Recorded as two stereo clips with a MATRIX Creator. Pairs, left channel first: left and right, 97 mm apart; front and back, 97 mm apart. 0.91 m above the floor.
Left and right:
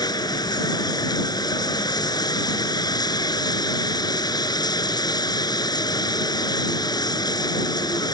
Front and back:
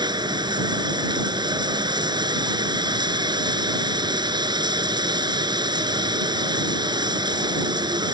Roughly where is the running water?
Behind left.